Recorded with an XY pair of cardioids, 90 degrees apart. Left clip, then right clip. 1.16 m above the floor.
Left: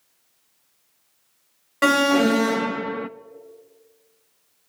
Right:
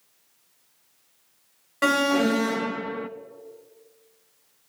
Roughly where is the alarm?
Ahead left.